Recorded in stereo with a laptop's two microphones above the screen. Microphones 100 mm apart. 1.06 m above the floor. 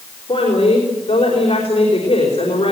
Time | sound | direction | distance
0.3 | a woman speaking | 60° left (ahead or behind) | 4.5 m